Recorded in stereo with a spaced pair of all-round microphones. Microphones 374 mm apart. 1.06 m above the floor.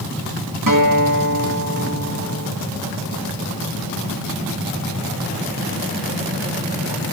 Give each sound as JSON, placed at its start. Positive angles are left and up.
{"t": 0.7, "sound": "a guitar", "side_deg": -55, "distance_m": 2.5}